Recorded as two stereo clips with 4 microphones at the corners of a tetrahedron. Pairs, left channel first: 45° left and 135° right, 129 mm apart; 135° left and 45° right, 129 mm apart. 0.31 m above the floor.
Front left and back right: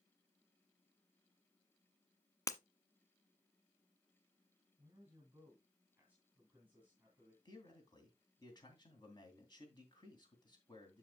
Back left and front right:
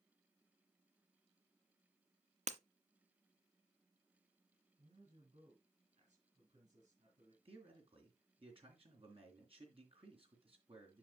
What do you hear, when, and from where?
2.5 s breaking glass: 20° right, 0.6 m
4.8 s a man speaking: 55° right, 3 m
7.5 s a man speaking: 10° right, 3 m